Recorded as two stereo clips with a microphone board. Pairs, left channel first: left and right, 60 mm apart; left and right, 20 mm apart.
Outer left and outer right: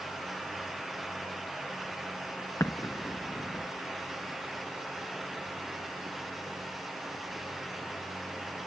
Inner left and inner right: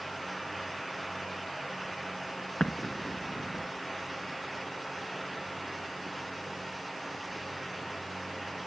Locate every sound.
2.6 s an explosion: 55° left (ahead or behind), 0.7 m